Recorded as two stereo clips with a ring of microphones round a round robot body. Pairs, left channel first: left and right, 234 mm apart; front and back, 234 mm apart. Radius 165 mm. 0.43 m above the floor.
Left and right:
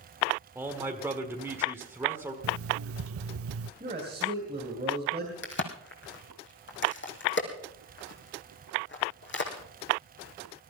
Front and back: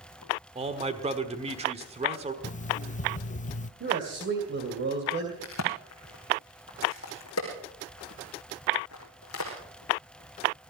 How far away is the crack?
About 3 m.